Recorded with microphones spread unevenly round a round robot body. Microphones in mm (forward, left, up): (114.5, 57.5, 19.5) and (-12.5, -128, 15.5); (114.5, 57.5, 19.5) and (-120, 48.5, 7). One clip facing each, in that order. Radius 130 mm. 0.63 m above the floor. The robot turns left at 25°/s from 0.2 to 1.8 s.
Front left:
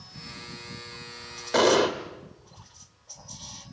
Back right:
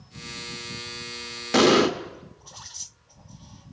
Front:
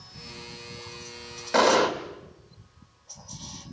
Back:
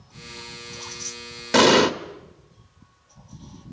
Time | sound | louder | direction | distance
1.5 | an explosion | back right 3 dB, back 5 dB | 170° right | 1.5 m